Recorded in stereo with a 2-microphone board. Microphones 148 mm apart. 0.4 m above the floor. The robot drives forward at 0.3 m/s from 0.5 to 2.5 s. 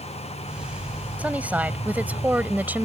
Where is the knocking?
No knocking in this recording.